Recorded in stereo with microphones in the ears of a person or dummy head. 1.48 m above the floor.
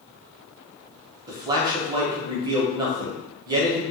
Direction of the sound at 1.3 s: 25° right (ahead or behind).